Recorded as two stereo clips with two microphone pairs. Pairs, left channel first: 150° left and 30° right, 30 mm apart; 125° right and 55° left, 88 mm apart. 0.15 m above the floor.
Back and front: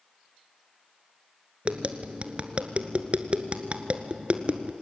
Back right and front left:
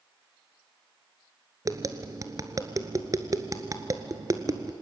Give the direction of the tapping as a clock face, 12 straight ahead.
12 o'clock.